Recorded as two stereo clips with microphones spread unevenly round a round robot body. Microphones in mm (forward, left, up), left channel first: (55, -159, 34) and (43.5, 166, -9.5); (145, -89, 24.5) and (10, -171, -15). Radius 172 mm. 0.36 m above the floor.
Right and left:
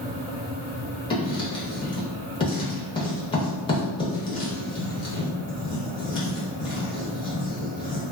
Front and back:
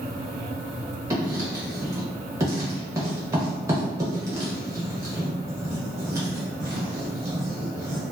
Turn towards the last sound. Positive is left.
turn(degrees=-165)